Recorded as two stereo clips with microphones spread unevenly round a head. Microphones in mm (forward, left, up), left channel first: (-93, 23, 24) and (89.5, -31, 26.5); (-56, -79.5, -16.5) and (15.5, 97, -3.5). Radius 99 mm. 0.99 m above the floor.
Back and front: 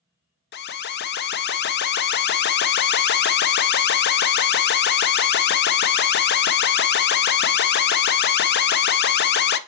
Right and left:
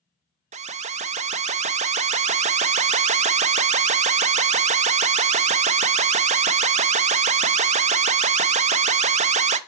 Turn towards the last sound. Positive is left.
turn(degrees=125)